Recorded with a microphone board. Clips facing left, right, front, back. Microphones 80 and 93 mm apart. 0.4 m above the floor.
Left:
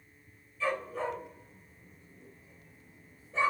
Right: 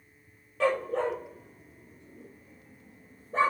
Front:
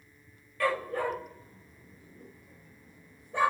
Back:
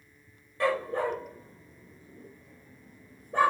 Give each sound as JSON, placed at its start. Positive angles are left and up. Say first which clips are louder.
{"t": 0.6, "sound": "a dog barking", "louder": "right 6 dB, back 2 dB", "azimuth_deg": -115, "distance_m": 4.0}